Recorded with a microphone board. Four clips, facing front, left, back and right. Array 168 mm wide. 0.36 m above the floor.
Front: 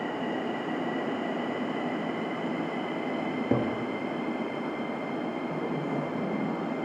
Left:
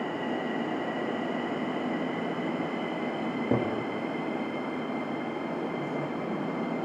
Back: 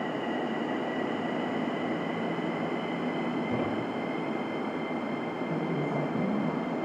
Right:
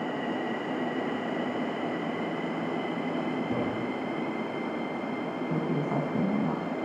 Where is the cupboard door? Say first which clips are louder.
Left 1 dB, front 2 dB; 40° left, 6.5 m.